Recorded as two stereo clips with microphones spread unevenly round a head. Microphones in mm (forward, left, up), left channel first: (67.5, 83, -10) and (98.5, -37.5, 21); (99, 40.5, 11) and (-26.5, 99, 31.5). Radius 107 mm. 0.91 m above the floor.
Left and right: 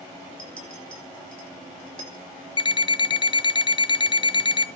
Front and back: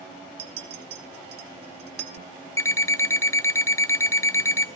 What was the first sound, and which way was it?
A clink, 175° left.